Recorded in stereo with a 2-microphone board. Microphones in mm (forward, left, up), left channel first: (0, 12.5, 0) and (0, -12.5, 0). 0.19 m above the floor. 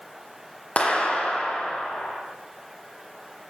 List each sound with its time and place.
0.8 s a clap: 45° left (ahead or behind), 8 m